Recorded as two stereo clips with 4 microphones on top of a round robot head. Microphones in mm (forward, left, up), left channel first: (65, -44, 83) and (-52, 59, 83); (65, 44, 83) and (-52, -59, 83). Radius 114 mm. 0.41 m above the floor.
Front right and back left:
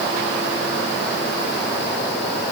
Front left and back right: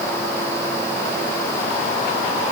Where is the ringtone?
I don't hear a ringtone.